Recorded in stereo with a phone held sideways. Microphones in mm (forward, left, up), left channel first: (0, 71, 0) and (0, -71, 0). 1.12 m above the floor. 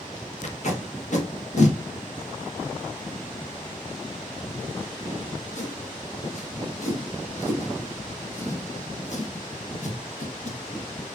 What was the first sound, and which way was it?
Tape being pulled, 60° left (ahead or behind).